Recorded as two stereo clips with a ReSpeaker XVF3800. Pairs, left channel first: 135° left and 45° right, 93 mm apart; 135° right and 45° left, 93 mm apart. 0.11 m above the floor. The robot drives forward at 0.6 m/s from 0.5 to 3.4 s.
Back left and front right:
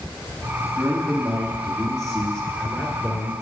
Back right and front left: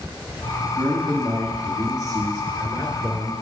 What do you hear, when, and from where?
0.8 s a man speaking: 30° left, 2.5 m; by 3.3 s 90° left, 1.7 m